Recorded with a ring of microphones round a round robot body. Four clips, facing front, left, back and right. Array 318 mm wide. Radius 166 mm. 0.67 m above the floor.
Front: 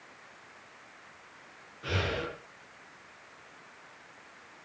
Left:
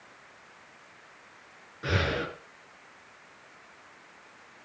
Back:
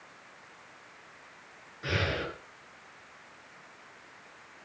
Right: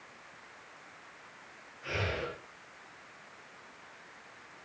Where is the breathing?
100° left, 5 m.